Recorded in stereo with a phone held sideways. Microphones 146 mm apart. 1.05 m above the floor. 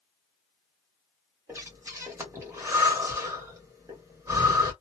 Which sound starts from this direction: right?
Breathing, at 1.5 s.